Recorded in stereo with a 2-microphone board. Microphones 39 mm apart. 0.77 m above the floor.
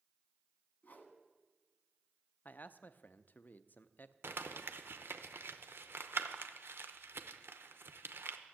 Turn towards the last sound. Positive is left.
turn(degrees=-75)  # may be behind; listen again after turning